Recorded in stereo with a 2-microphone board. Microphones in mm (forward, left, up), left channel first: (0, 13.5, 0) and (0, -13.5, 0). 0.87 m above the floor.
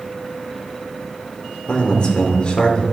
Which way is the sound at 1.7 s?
40° left (ahead or behind).